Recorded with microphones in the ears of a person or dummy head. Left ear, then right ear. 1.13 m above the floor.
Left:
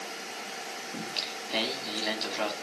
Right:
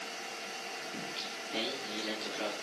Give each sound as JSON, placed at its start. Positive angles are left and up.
{"t": 0.9, "sound": "singing", "side_deg": 45, "distance_m": 2.5}